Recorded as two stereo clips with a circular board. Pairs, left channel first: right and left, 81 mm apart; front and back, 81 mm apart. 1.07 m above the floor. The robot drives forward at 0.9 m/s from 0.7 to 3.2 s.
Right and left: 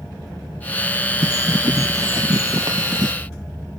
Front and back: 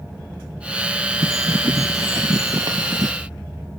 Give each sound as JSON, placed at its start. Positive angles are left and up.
{"t": 1.2, "sound": "a bird", "azimuth_deg": 135}